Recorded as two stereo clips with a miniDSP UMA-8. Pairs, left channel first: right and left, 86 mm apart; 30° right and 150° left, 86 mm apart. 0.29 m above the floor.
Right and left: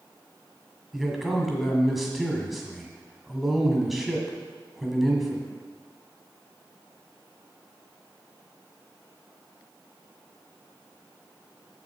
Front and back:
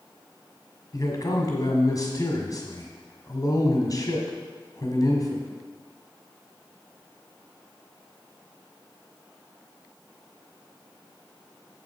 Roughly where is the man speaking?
Ahead.